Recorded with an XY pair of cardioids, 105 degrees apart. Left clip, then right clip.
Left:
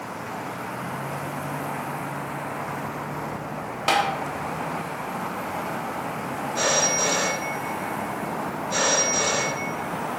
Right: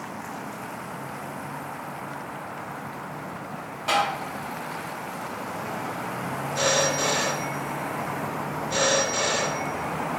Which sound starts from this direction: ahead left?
Tapping, at 3.9 s.